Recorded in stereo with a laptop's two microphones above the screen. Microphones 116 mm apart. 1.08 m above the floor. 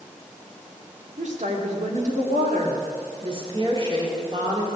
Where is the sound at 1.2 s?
80° right, 2.5 m.